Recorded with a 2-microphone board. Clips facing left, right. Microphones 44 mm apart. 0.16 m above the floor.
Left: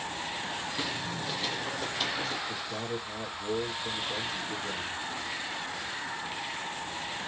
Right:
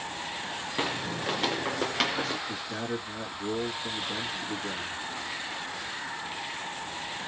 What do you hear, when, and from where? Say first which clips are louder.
0.8 s footsteps: right 3 dB; 40° right (ahead or behind), 0.6 m; by 2.4 s 85° right, 1.3 m
2.5 s a man speaking: right 1 dB; 45° right (ahead or behind), 2 m